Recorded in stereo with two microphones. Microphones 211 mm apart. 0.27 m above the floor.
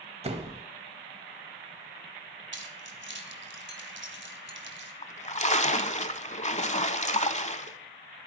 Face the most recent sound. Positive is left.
turn(degrees=35)  # may be behind; listen again after turning